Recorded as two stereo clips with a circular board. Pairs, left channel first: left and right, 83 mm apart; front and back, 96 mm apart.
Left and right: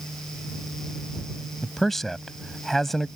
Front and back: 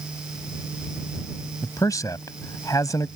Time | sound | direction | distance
1.6 | a man speaking | 5° left | ?